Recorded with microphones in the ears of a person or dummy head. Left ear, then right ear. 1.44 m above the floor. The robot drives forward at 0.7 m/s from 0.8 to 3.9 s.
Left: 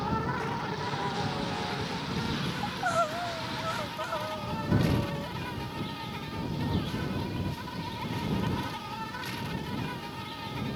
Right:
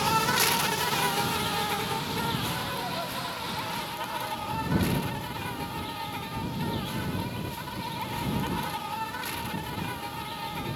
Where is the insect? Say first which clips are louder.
Right 7 dB; 75° right (ahead or behind); by 10.8 s 25° right (ahead or behind).